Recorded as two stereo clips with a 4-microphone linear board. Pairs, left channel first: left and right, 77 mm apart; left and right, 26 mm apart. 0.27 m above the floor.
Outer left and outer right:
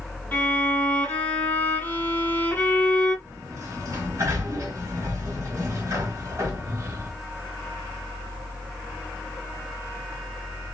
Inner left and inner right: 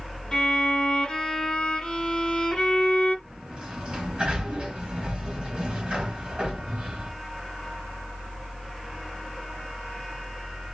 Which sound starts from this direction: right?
A sliding door, at 3.2 s.